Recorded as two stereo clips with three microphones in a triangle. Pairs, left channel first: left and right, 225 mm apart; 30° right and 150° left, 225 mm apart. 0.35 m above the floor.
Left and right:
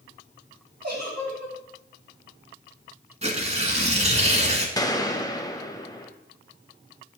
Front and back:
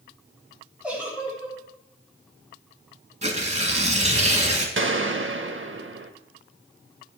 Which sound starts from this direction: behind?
A gunshot, at 4.8 s.